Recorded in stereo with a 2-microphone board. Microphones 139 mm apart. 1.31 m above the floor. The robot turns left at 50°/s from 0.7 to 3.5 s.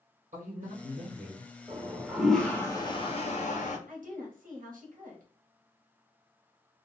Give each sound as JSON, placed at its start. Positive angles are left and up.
{"t": 0.3, "sound": "a man speaking", "azimuth_deg": -70, "distance_m": 0.9}
{"t": 1.7, "sound": "a toilet flushing", "azimuth_deg": -150, "distance_m": 0.7}
{"t": 3.9, "sound": "a woman speaking", "side_deg": -80, "distance_m": 1.0}